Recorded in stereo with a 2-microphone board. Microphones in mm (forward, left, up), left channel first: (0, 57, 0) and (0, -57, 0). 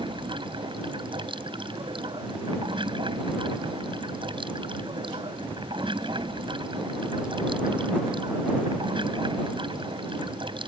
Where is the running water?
50° right (ahead or behind).